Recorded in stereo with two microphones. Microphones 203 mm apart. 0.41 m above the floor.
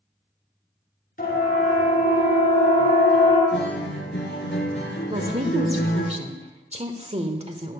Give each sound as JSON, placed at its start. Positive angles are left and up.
{"t": 1.2, "sound": "a siren", "side_deg": 50, "distance_m": 8.0}
{"t": 3.5, "sound": "a guitar", "side_deg": 65, "distance_m": 5.0}
{"t": 5.1, "sound": "a woman speaking", "side_deg": -30, "distance_m": 1.5}